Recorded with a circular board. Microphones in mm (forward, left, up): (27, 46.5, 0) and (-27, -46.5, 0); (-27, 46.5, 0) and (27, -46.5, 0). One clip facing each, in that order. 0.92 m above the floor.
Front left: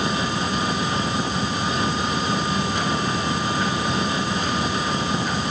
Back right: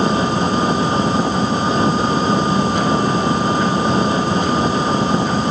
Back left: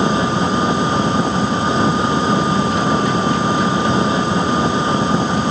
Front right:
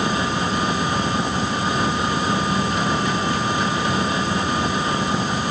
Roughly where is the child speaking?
No child speaking in this recording.